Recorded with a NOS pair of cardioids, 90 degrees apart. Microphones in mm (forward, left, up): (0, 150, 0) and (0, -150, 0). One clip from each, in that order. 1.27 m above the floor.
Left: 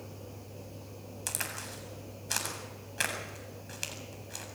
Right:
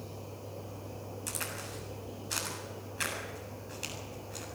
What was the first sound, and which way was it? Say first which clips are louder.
A crack: left 2 dB; 50° left.